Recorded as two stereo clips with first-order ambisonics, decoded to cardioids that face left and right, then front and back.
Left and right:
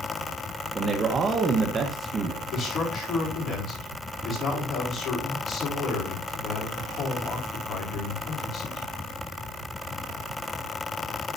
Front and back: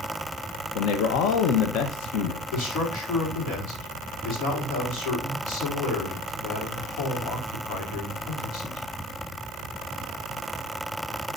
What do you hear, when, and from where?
0.8 s a man speaking: 20° right, 1.1 m
2.5 s a man speaking: 35° left, 4.5 m